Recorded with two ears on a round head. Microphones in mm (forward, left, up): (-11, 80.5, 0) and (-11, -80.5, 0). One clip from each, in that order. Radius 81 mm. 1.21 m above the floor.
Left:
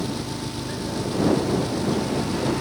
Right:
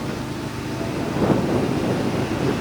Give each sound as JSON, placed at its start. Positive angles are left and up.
{"t": 0.0, "sound": "an engine running", "side_deg": 60}